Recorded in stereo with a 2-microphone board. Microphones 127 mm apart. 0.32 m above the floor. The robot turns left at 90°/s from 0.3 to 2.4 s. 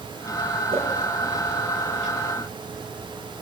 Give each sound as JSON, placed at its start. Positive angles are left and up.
{"t": 0.7, "sound": "a whoosh", "side_deg": -45, "distance_m": 7.5}